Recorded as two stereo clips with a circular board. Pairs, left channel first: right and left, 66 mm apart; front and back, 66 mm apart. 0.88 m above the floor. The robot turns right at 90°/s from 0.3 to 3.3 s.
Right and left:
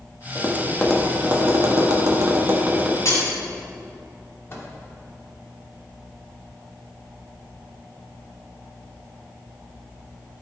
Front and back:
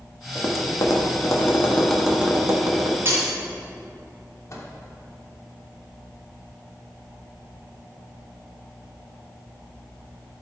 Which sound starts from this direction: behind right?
Breaking glass, at 3.0 s.